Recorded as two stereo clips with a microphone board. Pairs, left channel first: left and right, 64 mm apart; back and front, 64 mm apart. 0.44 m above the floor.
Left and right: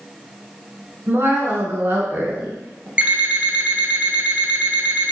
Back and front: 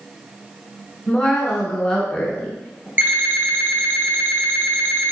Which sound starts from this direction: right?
A woman speaking, at 1.1 s.